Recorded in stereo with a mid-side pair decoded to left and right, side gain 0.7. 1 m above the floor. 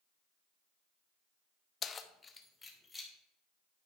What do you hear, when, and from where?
1.8 s keys jangling: 35° left, 0.7 m; by 3.1 s 10° left, 1.9 m